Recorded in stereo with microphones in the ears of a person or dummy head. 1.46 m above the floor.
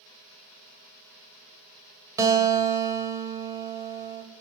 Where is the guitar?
15° right (ahead or behind), 2 m.